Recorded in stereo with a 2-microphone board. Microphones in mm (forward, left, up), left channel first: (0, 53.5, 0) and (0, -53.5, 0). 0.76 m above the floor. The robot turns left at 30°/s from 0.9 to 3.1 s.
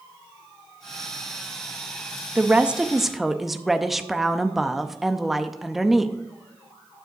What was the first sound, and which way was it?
A woman speaking, 15° right (ahead or behind).